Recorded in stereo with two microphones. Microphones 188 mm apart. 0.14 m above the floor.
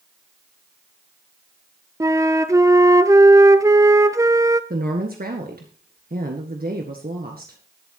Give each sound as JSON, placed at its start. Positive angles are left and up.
{"t": 2.0, "sound": "a flute", "side_deg": -15, "distance_m": 0.7}
{"t": 4.7, "sound": "a woman speaking", "side_deg": -55, "distance_m": 1.8}